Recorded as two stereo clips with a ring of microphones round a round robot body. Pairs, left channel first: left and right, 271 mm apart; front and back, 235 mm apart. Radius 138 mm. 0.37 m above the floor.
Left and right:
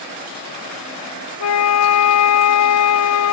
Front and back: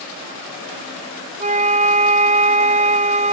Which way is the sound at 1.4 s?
120° left.